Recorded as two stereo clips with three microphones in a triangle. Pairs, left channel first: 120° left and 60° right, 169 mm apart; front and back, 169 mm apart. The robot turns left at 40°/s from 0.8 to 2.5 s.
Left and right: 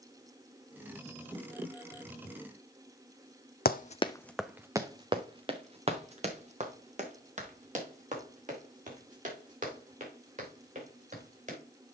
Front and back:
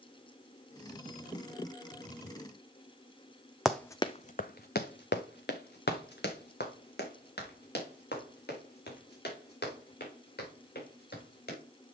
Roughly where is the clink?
No clink in this recording.